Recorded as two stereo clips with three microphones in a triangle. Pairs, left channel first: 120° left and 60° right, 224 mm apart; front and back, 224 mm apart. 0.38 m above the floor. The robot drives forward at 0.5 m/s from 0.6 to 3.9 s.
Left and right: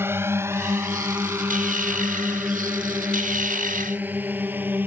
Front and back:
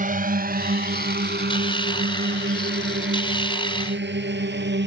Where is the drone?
140° right.